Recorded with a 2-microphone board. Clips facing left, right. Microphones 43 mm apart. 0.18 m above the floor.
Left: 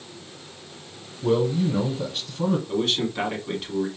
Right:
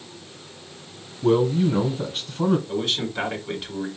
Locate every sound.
1.2 s a man speaking: 20° right (ahead or behind), 1.0 m
2.7 s a man speaking: 5° right (ahead or behind), 1.6 m